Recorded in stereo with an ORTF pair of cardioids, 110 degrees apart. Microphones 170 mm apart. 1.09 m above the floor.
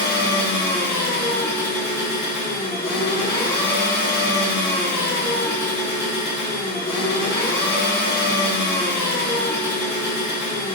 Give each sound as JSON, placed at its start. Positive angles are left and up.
{"t": 0.0, "sound": "an engine running", "azimuth_deg": 65, "distance_m": 1.4}